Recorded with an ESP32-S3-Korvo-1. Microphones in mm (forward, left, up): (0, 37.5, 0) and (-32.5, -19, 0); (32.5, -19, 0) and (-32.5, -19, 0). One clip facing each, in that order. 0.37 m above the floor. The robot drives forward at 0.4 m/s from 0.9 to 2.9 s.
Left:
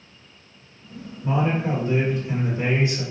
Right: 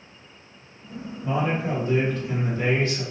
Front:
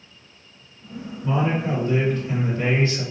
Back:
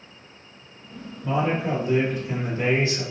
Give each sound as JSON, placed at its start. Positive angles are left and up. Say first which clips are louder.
{"t": 1.2, "sound": "a man speaking", "louder": "left 2 dB, front 1 dB", "azimuth_deg": 85, "distance_m": 1.6}